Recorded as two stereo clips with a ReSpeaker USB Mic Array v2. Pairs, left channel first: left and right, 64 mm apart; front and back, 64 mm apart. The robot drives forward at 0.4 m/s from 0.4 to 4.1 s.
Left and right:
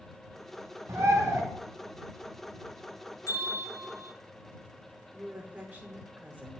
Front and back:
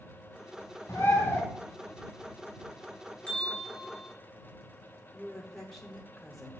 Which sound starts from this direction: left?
A bell, at 3.3 s.